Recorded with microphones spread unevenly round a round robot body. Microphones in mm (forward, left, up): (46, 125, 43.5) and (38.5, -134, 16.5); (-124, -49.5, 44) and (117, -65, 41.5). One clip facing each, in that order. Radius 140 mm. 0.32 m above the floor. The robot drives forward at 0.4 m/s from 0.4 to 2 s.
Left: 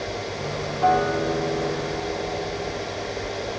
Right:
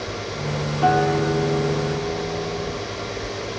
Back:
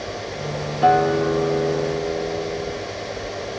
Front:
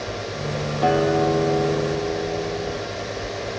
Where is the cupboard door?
No cupboard door in this recording.